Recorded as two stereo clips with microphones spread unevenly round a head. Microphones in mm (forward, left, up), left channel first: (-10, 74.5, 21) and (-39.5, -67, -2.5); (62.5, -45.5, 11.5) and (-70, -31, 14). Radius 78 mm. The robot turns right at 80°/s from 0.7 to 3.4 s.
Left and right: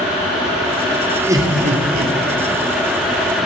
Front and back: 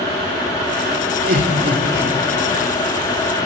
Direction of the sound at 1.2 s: Straight behind.